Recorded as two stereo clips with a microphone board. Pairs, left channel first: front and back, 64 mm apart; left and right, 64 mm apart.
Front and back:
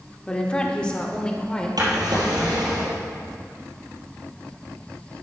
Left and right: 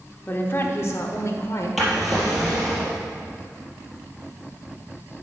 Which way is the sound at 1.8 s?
175° right.